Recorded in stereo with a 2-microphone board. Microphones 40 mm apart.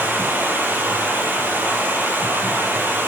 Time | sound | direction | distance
0.0 | running water | 55° right (ahead or behind) | 4 m